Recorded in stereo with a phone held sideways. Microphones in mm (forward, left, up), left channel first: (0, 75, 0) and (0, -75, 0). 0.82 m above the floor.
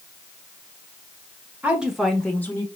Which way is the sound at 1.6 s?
10° right (ahead or behind).